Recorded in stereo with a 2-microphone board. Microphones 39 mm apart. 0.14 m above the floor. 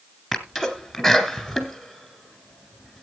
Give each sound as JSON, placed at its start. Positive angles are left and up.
{"t": 0.3, "sound": "a sneeze", "side_deg": -5, "distance_m": 2.0}